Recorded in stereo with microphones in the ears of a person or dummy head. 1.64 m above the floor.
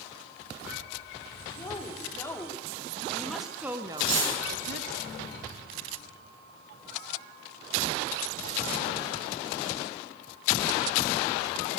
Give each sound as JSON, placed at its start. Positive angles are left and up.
{"t": 1.6, "sound": "a woman speaking", "side_deg": 20, "distance_m": 4.5}
{"t": 4.0, "sound": "cutlery clinking", "side_deg": -80, "distance_m": 9.5}